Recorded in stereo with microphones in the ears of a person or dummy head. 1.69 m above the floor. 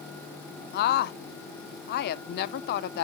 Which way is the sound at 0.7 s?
55° left (ahead or behind).